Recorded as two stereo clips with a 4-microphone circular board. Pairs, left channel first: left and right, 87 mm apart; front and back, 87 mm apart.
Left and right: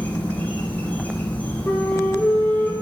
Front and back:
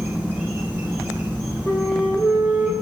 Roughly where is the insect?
Behind left.